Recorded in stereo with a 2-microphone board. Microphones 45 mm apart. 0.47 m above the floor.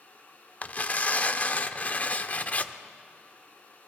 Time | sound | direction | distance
0.6 | tearing paper | 35° left (ahead or behind) | 0.6 m